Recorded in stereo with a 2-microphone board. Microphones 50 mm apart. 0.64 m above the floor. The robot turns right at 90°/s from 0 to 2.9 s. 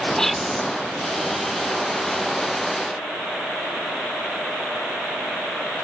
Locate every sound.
0.2 s whispering: 165° left; by 0.6 s 155° right